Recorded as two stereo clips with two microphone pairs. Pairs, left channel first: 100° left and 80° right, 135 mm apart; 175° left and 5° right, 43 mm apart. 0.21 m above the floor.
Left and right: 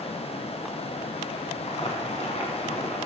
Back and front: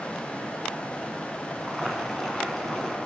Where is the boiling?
90° left, 2 m.